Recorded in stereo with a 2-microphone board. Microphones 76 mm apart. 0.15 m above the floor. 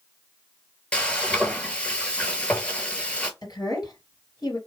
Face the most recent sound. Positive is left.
turn(degrees=60)  # may be behind; listen again after turning